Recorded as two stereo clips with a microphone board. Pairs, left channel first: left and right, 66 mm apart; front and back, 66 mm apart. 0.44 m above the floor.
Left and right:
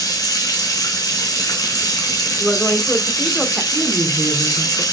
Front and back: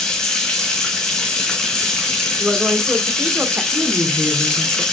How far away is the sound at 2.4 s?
About 0.8 m.